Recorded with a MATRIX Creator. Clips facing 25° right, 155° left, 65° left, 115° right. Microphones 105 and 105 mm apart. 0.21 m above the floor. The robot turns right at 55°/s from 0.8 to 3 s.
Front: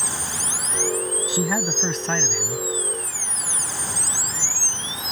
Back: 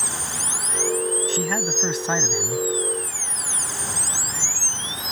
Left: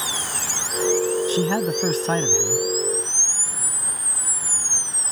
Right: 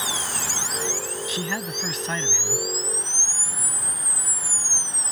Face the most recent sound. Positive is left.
turn(degrees=135)